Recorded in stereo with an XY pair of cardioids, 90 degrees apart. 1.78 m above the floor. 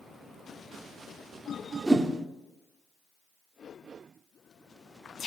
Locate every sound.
1.9 s a whoosh: 25° right, 0.6 m